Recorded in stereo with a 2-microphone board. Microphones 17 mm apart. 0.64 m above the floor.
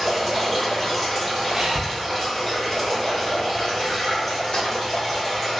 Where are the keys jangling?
65° left (ahead or behind), 0.9 m.